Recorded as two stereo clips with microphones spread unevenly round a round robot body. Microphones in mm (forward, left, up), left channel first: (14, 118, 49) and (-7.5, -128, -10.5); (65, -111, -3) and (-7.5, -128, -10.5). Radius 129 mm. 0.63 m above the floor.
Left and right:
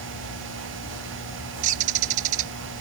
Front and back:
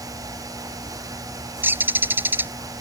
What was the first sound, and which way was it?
A bird, 105° right.